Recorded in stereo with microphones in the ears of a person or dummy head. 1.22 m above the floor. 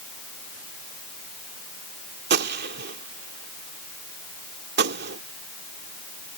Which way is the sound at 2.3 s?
50° right (ahead or behind).